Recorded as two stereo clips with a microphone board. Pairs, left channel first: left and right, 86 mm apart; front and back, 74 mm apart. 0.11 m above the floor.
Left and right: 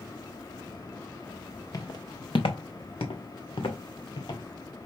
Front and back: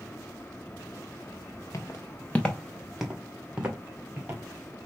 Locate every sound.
1.7 s footsteps: 45° left, 0.8 m; by 4.4 s 115° left, 1.8 m